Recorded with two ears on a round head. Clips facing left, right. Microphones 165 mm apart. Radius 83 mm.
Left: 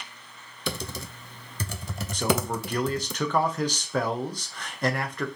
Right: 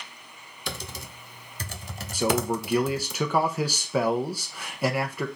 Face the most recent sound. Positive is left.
turn(degrees=-10)  # may be behind; listen again after turning